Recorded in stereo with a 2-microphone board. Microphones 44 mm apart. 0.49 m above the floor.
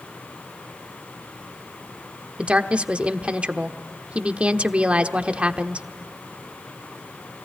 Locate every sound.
2.4 s a woman speaking: 30° right (ahead or behind), 1.0 m